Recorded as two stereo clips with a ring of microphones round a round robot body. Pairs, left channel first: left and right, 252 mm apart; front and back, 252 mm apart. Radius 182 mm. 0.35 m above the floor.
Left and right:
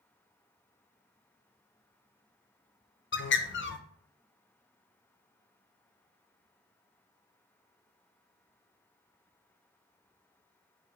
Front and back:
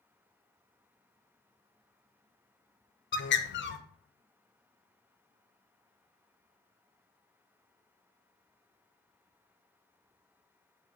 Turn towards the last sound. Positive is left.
turn(degrees=45)